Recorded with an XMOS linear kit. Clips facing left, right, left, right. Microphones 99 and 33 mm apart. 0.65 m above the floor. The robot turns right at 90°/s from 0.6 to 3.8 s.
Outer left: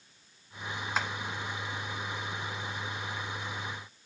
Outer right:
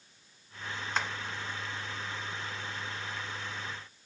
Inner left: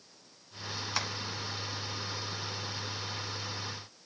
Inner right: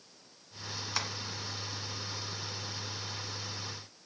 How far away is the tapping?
About 1.5 m.